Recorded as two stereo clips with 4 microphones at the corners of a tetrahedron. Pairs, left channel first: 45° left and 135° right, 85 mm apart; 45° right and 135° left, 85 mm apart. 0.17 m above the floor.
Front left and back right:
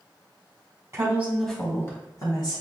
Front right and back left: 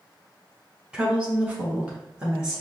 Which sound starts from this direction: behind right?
A woman speaking, at 0.9 s.